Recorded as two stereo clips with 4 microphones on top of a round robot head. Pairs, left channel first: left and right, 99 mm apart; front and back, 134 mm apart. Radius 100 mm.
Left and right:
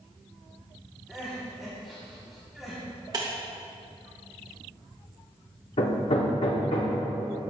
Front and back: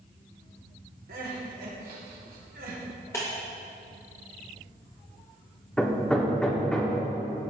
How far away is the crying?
About 1.6 m.